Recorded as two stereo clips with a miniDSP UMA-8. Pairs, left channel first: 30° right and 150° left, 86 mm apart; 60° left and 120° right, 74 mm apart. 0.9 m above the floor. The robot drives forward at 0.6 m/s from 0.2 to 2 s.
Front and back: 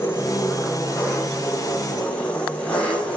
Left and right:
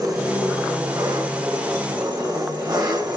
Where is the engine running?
90° right, 4.5 m; by 3.2 s 105° right, 4.5 m.